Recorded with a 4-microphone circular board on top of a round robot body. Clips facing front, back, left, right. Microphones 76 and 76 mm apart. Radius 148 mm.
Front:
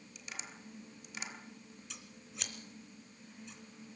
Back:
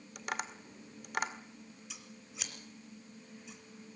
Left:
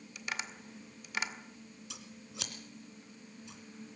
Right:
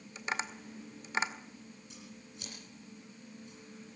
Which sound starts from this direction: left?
Scissors, at 1.9 s.